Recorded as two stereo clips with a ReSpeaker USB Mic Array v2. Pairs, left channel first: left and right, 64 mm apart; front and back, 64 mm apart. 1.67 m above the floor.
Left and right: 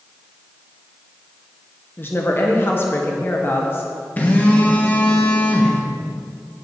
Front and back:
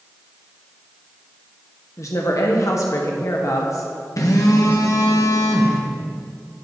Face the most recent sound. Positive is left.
turn(degrees=25)